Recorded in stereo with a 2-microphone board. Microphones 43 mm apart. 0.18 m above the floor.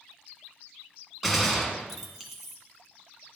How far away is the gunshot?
About 1.6 m.